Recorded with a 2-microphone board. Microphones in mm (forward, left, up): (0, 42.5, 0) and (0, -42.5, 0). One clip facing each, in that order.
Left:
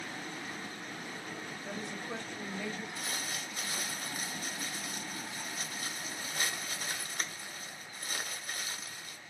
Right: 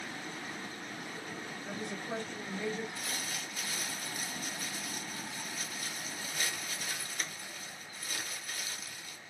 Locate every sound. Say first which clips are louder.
1.6 s a woman speaking: right 1 dB; 55° right (ahead or behind), 2.5 m; by 2.9 s 15° right (ahead or behind), 1.4 m
3.0 s crumpling: left 1 dB; 40° left (ahead or behind), 0.9 m